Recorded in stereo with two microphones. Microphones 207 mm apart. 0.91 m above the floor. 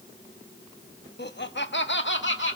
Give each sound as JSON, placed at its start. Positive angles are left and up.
{"t": 1.2, "sound": "laughter", "side_deg": 55, "distance_m": 1.1}